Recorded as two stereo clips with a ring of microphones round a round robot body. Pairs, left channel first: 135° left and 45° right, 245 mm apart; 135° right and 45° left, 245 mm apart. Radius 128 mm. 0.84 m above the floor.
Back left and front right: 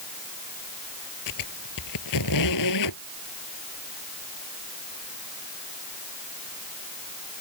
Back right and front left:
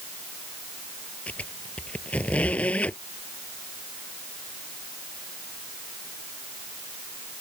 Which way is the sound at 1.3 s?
140° left.